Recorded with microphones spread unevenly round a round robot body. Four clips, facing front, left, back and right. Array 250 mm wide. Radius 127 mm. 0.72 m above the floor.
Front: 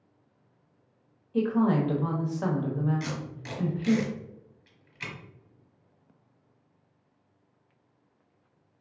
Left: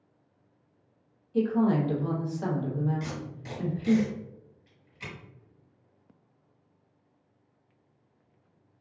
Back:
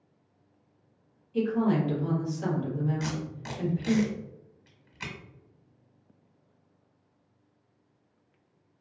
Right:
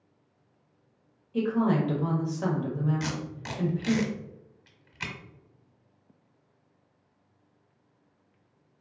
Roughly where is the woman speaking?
Ahead right.